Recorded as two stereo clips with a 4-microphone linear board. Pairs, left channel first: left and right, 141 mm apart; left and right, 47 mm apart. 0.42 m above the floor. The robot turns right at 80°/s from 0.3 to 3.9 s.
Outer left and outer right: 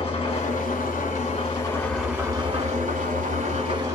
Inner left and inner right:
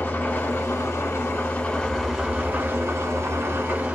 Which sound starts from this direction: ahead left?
An engine running, at 0.0 s.